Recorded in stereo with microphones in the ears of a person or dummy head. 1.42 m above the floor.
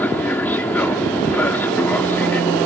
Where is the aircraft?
10° left (ahead or behind).